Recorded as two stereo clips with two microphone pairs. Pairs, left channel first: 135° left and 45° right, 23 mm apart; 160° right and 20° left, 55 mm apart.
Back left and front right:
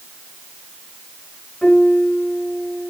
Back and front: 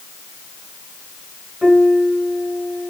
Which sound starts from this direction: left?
A piano, at 1.6 s.